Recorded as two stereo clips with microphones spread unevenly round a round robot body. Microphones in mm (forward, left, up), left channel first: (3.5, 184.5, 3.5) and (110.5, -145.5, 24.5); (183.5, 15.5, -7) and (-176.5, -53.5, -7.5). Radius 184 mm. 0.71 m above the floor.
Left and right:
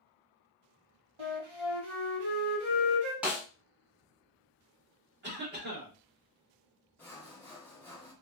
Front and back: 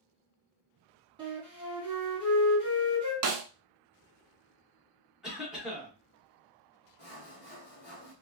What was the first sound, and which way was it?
A flute, 95° right.